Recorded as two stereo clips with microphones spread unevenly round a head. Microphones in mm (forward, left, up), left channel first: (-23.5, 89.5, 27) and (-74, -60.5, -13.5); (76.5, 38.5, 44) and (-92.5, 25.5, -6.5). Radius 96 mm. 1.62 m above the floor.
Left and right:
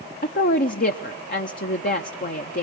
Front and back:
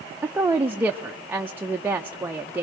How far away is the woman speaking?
About 0.8 m.